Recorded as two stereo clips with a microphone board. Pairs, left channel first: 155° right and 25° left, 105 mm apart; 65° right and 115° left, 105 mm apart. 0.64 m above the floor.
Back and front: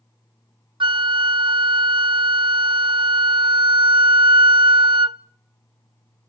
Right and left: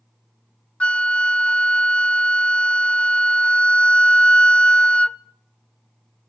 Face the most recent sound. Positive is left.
turn(degrees=10)